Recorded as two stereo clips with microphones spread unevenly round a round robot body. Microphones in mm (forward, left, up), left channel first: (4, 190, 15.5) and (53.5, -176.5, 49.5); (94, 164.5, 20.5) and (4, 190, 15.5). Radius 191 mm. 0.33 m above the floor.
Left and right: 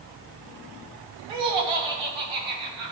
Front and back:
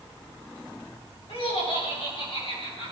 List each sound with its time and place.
1.3 s laughter: 85° right, 3.5 m; by 2.9 s 90° right, 4.5 m